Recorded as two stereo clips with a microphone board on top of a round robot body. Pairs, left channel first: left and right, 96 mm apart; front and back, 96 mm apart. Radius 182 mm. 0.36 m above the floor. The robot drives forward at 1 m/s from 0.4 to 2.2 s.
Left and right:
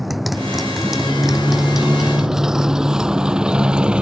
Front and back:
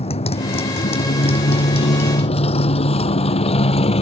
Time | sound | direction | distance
0.0 | a motorcycle | straight ahead | ?